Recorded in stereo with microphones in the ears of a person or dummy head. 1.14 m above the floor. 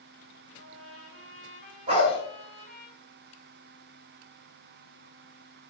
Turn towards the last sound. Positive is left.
turn(degrees=-40)  # may be behind; listen again after turning